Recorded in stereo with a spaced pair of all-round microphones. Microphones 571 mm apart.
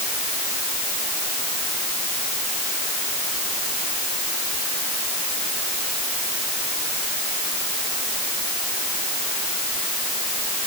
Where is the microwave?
I don't hear a microwave.